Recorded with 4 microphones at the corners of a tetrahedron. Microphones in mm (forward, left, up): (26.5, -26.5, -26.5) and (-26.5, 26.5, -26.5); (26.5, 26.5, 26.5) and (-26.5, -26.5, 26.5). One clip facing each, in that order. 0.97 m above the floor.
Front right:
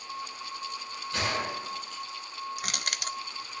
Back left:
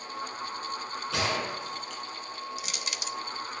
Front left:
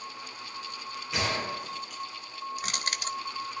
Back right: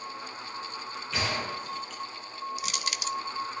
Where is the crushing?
5° right, 0.6 m.